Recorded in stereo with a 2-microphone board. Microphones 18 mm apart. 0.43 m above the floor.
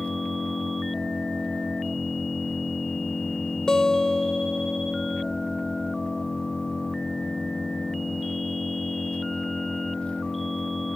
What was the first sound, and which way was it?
An engine running, 90° left.